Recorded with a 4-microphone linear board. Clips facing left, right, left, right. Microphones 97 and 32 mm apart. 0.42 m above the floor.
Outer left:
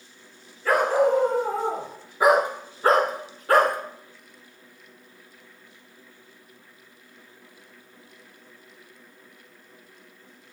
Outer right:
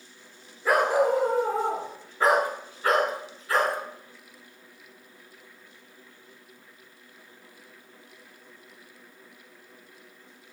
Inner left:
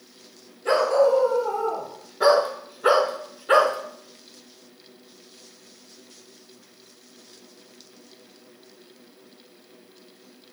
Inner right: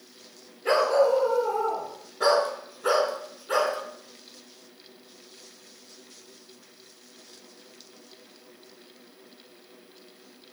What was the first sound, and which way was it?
A dog barking, 15° right (ahead or behind).